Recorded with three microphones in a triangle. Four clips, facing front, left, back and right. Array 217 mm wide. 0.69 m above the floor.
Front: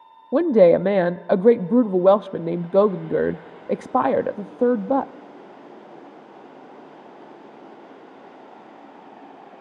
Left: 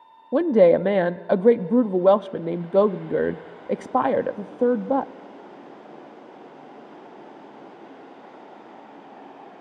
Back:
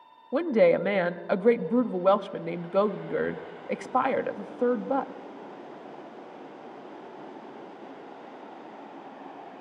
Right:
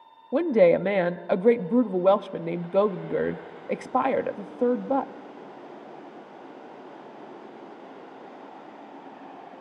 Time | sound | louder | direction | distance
0.3 | a woman speaking | left 3 dB, front 7 dB | 25° left | 0.6 m